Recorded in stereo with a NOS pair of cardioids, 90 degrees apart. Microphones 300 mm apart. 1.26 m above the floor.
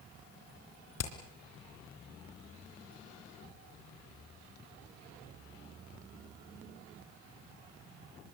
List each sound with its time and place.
1.0 s hammering: 60° left, 4 m